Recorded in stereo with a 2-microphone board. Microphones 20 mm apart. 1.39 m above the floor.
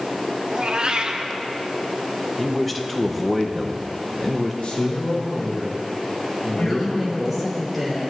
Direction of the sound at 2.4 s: 5° left (ahead or behind).